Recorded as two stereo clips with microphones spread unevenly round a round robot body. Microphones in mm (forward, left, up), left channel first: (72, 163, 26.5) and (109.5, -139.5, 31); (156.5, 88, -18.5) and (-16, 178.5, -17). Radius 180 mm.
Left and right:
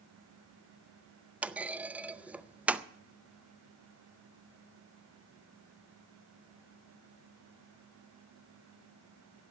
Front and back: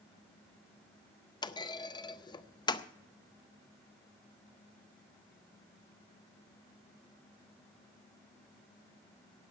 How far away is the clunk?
About 0.6 m.